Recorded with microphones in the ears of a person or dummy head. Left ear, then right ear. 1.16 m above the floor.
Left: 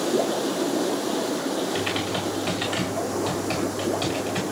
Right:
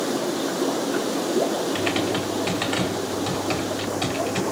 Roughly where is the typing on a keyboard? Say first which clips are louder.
Right 2 dB; centre.